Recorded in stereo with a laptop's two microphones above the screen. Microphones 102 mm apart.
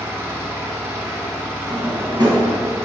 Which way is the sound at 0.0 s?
25° right (ahead or behind).